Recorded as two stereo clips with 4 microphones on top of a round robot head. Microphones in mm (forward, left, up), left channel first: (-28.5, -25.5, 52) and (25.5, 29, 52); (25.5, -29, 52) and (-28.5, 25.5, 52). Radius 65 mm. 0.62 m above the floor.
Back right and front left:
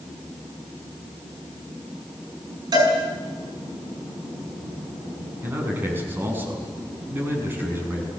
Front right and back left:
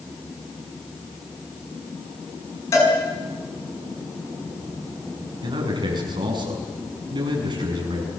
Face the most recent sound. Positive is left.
turn(degrees=110)